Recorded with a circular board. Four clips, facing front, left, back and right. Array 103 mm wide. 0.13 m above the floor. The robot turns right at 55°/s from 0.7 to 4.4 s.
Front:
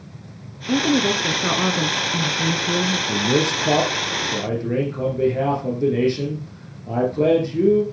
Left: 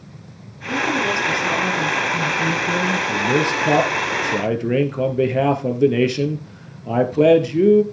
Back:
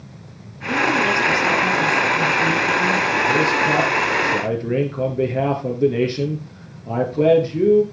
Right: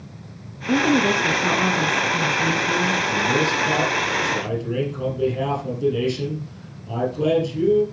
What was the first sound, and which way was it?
A woman speaking, 60° right.